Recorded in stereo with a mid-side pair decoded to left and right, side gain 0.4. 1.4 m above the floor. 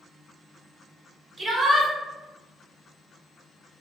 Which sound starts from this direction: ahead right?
A shout, at 1.4 s.